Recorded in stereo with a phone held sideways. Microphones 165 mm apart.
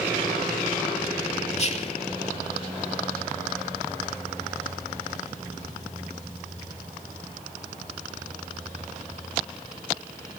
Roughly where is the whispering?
Left.